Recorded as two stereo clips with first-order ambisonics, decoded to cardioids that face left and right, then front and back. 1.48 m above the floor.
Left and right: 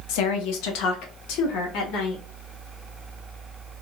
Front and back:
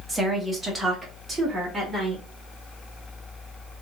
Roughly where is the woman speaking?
Left.